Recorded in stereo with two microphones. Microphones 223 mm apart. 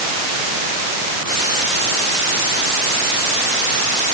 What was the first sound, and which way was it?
Only background noise.